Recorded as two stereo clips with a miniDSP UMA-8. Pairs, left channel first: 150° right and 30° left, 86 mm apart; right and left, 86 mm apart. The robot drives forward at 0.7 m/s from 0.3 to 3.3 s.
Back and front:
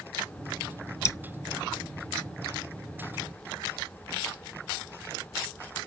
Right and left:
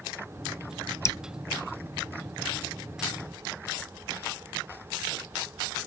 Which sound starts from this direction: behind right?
Dripping, at 1.1 s.